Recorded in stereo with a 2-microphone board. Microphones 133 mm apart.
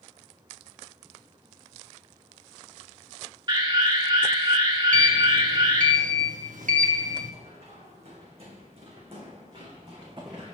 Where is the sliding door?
80° right, 1.2 m.